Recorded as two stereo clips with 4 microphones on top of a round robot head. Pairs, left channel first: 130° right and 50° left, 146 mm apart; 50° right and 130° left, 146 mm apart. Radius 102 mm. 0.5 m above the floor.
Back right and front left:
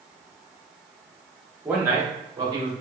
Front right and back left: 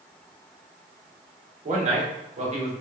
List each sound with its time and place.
1.6 s a man speaking: 125° left, 2 m; by 2.7 s 100° left, 2 m